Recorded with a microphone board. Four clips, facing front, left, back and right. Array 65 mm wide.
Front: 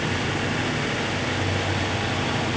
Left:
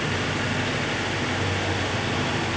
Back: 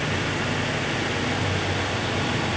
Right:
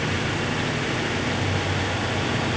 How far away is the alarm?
I don't hear an alarm.